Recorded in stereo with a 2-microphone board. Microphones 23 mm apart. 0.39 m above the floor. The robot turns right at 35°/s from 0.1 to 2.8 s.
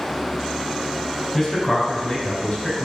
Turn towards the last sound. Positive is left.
turn(degrees=45)